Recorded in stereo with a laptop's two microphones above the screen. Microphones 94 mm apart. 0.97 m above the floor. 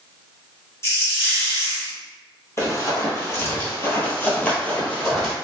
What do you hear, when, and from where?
0.8 s a hiss: 30° left (ahead or behind), 0.9 m
2.6 s running footsteps: 30° left (ahead or behind), 1.2 m; by 5.3 s 10° left (ahead or behind), 1.3 m